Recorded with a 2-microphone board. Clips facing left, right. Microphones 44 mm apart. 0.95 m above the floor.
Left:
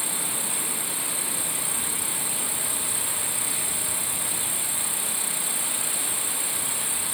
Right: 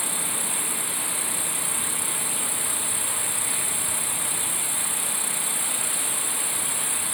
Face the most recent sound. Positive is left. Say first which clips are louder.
# right 1 dB
turn(degrees=30)  # may be behind; listen again after turning